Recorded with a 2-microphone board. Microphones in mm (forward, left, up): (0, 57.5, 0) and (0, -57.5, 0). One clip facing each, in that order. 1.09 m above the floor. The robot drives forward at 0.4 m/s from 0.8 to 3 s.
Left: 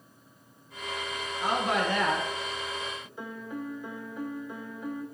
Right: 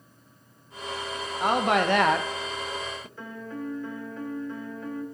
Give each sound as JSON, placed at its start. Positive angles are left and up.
{"t": 1.4, "sound": "a woman speaking", "side_deg": -55, "distance_m": 0.6}
{"t": 3.2, "sound": "a piano", "side_deg": 15, "distance_m": 0.6}